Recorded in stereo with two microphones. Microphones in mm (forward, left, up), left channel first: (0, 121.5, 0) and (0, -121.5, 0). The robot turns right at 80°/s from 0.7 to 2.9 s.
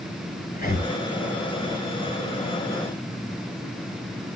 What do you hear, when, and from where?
0.5 s breathing: 40° left (ahead or behind), 1.7 m; by 0.9 s 55° left (ahead or behind), 1.7 m